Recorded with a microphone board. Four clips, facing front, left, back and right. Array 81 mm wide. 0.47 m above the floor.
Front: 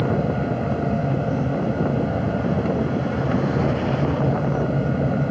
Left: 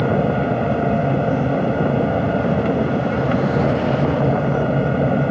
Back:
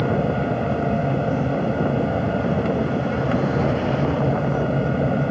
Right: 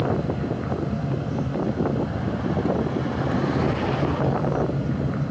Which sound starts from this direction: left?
An aircraft, at 0.0 s.